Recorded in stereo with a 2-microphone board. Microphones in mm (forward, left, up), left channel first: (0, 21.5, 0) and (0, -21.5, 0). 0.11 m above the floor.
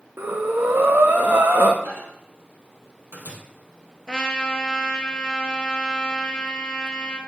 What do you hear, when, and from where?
0.2 s breathing: 55° right (ahead or behind), 1.3 m
1.9 s a microwave: 55° right (ahead or behind), 2 m
4.1 s a trumpet: 15° left (ahead or behind), 1.0 m